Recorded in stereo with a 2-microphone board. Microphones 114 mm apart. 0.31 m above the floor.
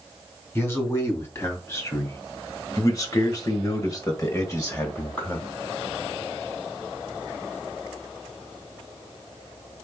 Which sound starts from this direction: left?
A man speaking, at 0.6 s.